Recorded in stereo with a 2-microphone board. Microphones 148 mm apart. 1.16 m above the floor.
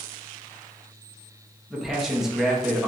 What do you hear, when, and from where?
1.7 s a man speaking: 5° right (ahead or behind), 0.9 m